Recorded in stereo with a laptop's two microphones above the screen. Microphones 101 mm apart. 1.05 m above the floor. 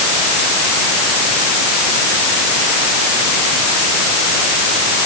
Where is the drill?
No drill in this recording.